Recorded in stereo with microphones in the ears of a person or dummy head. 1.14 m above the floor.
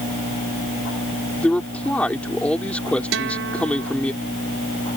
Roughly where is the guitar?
Right.